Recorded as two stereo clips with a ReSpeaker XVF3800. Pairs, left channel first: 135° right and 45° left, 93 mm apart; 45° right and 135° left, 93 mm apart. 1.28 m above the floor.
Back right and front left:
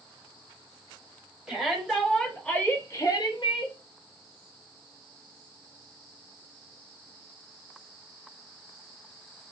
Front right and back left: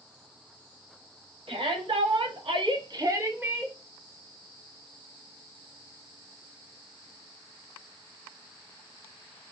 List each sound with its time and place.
1.5 s a shout: 130° left, 1.3 m; by 3.8 s 140° right, 0.7 m